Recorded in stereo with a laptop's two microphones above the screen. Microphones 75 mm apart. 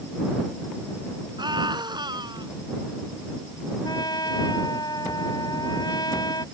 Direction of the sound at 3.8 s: 65° left (ahead or behind).